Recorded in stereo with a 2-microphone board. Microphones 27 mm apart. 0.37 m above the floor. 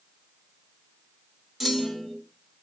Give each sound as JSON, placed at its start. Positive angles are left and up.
{"t": 1.6, "sound": "a clunk", "side_deg": 0, "distance_m": 1.2}